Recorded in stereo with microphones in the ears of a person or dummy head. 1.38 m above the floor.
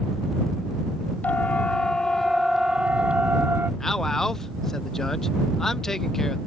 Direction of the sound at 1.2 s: 10° left (ahead or behind).